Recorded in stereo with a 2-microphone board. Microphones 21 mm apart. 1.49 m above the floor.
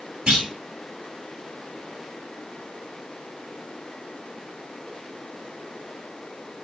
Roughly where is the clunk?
Right.